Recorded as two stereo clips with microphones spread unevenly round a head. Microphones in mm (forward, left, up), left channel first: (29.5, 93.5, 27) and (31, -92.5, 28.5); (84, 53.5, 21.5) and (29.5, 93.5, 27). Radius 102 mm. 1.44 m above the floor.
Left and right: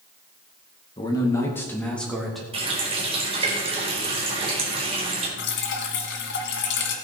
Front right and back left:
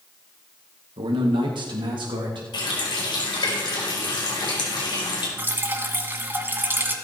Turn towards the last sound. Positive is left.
turn(degrees=100)